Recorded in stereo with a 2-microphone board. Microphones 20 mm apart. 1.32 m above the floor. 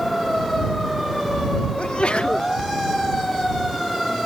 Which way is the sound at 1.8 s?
75° left (ahead or behind).